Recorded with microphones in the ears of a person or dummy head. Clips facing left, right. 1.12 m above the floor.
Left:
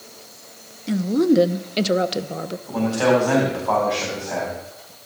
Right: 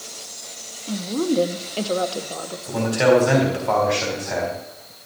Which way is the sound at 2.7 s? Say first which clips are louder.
Right 2 dB; 20° right (ahead or behind).